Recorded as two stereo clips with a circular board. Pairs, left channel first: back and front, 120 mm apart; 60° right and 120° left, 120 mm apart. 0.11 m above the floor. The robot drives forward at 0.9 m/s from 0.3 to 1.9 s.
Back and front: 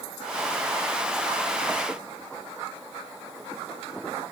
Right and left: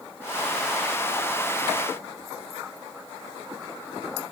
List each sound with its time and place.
Only background noise.